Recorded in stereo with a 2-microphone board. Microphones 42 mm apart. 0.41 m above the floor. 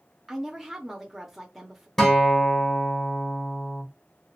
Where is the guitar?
10° left (ahead or behind), 1.4 m.